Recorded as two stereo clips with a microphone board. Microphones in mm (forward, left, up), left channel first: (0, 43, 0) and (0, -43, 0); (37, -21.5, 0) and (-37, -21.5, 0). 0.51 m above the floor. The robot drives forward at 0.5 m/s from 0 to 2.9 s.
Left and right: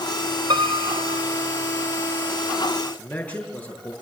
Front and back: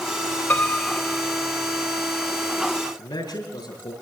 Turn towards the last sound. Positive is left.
turn(degrees=15)